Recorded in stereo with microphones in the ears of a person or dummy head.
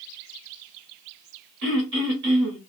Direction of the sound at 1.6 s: 75° right (ahead or behind).